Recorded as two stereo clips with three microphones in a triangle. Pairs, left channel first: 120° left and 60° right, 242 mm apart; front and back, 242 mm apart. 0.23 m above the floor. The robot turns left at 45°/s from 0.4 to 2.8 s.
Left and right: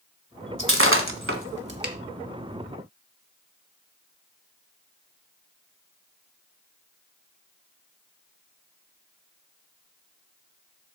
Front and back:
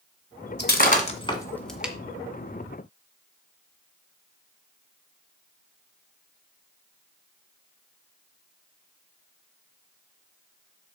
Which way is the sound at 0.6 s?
35° right.